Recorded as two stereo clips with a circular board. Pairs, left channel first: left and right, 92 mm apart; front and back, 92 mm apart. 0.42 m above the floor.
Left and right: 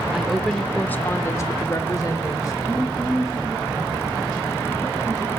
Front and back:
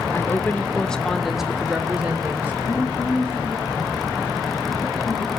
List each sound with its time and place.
0.1 s a woman speaking: 10° right, 0.8 m; by 2.5 s 115° left, 1.2 m
2.6 s a woman speaking: 10° right, 3.5 m